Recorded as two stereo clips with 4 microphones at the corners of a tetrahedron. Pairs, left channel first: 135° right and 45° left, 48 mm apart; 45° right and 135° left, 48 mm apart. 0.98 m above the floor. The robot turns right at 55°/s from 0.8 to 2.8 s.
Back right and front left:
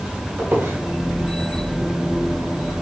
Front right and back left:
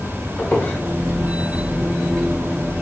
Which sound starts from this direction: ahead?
A squeak, at 0.4 s.